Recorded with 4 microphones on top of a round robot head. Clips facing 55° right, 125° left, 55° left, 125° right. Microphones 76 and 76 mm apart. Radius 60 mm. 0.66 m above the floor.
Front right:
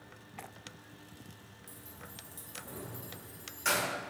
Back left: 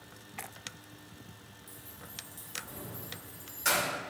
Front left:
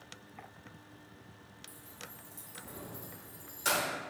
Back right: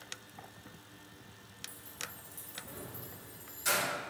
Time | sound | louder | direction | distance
1.7 | keys jangling | front right 1 dB, back right 4 dB | 60° right | 1.0 m